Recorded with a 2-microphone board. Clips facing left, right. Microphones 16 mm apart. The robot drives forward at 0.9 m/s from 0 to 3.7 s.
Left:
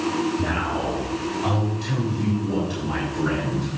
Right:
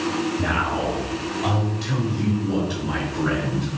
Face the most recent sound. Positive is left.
turn(degrees=-15)  # may be behind; listen again after turning